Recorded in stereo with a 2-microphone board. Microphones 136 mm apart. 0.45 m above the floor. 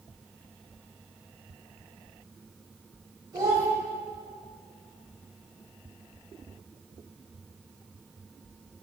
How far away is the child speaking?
About 2.0 m.